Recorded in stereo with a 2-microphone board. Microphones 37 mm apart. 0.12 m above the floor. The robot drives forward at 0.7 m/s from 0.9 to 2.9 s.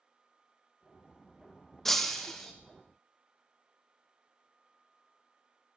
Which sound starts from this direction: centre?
Breaking glass, at 1.9 s.